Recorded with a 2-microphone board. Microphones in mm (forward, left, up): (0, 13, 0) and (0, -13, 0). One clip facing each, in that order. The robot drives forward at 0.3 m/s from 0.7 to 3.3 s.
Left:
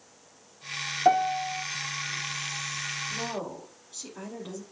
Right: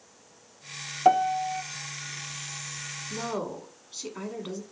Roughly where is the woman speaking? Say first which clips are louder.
Right 1 dB; right.